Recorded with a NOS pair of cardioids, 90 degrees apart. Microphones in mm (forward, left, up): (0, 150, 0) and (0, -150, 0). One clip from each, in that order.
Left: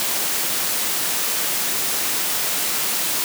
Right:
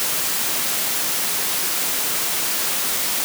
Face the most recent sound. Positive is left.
No sound to turn to.